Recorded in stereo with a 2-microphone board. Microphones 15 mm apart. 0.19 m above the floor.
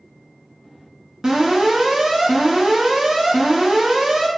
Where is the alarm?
60° right (ahead or behind), 1.7 m.